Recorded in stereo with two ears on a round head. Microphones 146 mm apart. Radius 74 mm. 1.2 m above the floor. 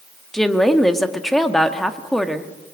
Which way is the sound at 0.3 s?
Centre (ahead or behind).